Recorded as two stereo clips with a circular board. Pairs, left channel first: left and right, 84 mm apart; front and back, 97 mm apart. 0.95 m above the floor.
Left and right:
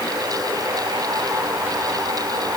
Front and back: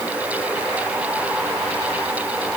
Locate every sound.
Only background noise.